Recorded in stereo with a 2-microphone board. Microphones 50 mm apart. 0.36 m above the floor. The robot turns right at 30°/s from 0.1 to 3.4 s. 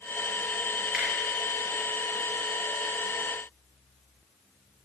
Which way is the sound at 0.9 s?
20° right (ahead or behind).